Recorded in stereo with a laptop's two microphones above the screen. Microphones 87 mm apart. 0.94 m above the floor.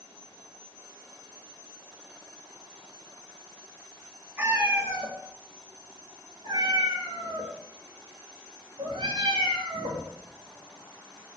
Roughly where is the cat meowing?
Right.